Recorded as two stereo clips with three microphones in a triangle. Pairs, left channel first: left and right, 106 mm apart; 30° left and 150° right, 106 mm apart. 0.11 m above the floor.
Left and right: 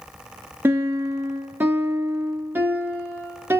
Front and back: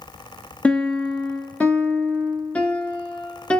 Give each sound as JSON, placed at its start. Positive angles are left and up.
{"t": 0.6, "sound": "a piano", "azimuth_deg": -40, "distance_m": 0.7}